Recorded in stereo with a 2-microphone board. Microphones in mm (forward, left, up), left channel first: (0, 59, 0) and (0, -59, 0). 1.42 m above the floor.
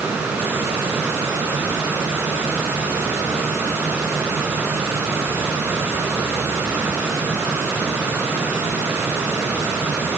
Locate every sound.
Only background noise.